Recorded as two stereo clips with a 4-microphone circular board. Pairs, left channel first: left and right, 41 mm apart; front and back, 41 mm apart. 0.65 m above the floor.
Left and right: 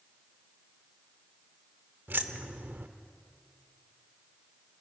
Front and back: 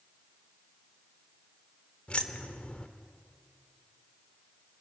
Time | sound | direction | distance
2.1 | keys jangling | 60° right | 1.2 m